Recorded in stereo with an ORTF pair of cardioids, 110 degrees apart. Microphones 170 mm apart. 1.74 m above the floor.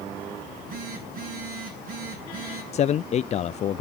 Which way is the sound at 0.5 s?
60° right.